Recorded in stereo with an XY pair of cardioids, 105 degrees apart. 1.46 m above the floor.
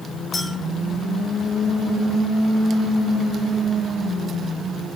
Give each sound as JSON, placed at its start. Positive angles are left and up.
{"t": 0.3, "sound": "a clink", "azimuth_deg": 30, "distance_m": 3.5}